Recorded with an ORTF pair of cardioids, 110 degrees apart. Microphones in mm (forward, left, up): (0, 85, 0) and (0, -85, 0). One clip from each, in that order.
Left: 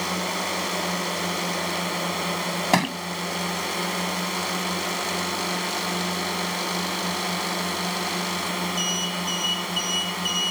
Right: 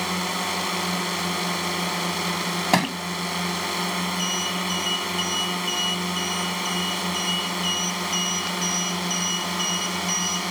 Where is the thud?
10° right.